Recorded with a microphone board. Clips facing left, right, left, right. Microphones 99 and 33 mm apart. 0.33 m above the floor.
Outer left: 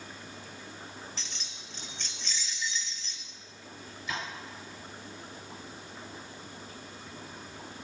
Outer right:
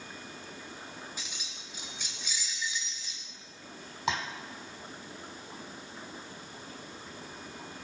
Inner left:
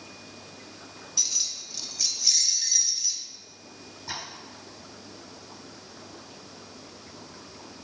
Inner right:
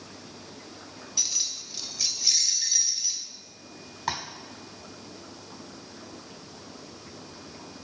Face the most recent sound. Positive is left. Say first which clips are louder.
# outer right 5 dB, inner right 6 dB
turn(degrees=-85)